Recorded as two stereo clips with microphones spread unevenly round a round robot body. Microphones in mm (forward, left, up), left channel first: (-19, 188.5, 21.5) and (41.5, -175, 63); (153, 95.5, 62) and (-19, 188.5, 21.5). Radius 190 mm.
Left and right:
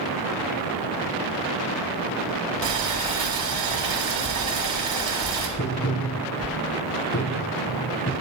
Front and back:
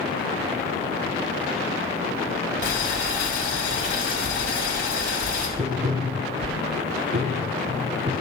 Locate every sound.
2.6 s boiling: 65° right, 2.5 m
5.6 s tapping: 165° left, 0.9 m